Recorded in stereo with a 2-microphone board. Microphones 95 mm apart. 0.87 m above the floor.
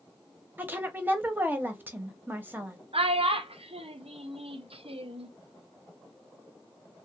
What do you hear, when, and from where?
0.6 s a woman speaking: 20° right (ahead or behind), 0.7 m
2.9 s a child speaking: 85° right, 0.6 m